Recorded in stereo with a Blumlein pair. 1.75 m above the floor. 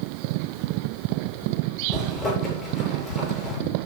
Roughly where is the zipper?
Ahead left.